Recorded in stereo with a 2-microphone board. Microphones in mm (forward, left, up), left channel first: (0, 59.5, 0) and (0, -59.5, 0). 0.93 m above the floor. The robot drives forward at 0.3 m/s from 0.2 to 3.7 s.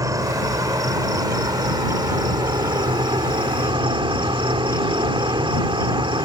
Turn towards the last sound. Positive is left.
turn(degrees=-45)  # may be behind; listen again after turning